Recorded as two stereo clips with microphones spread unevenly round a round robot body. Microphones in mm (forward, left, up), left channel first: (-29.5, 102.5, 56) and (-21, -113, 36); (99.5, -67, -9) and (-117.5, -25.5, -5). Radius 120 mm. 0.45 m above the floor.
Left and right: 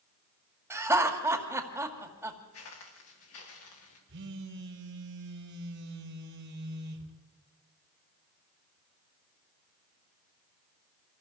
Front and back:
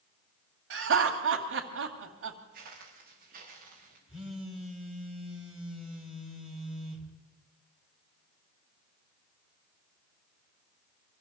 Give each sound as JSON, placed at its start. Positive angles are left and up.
{"t": 0.7, "sound": "laughter", "azimuth_deg": -165, "distance_m": 2.0}
{"t": 2.5, "sound": "footsteps", "azimuth_deg": 115, "distance_m": 5.5}
{"t": 4.1, "sound": "a phone buzzing", "azimuth_deg": -105, "distance_m": 3.0}